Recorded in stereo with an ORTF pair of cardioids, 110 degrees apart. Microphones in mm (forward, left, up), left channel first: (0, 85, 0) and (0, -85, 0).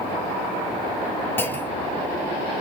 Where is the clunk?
10° left, 0.5 m.